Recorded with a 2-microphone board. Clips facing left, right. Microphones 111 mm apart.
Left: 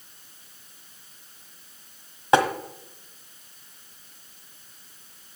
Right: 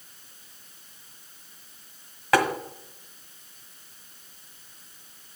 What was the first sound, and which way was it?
Tapping, 25° left (ahead or behind).